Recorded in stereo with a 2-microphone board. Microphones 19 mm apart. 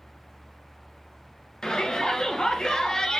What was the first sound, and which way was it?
A shout, 40° left (ahead or behind).